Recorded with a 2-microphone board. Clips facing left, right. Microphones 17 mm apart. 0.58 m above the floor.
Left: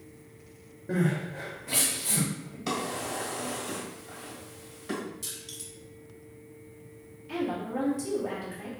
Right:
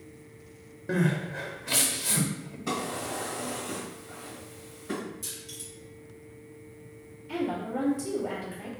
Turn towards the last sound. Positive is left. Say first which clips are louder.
# right 1 dB
turn(degrees=15)  # may be behind; listen again after turning